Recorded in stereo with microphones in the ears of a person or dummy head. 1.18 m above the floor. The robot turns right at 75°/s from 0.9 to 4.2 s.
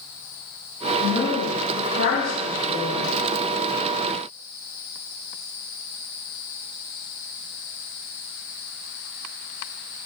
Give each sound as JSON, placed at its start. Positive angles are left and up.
{"t": 1.0, "sound": "a woman speaking", "azimuth_deg": 15, "distance_m": 1.4}